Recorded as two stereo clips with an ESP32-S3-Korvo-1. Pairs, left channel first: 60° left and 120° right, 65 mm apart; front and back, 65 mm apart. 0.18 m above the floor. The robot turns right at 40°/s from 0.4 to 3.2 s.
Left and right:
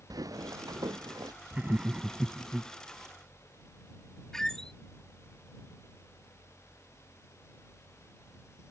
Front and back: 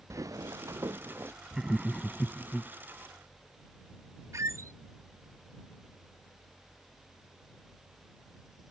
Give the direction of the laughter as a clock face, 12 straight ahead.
4 o'clock.